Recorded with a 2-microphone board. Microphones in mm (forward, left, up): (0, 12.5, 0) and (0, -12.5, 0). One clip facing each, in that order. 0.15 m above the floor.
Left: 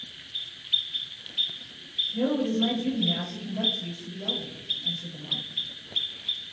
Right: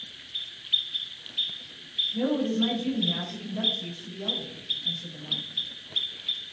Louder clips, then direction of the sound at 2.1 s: Left 2 dB; 25° right (ahead or behind).